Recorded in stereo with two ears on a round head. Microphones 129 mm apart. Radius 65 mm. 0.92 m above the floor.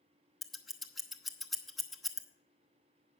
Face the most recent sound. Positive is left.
turn(degrees=0)  # may be behind; listen again after turning